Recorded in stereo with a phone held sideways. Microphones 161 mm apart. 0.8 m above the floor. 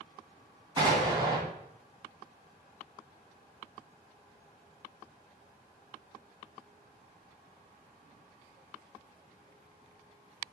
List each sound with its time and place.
0.8 s an explosion: 25° right (ahead or behind), 2.5 m